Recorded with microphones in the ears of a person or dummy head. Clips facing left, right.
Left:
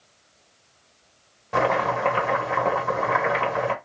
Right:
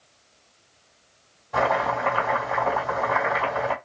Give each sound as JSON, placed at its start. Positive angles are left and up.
{"t": 1.5, "sound": "chopping", "side_deg": 80, "distance_m": 1.5}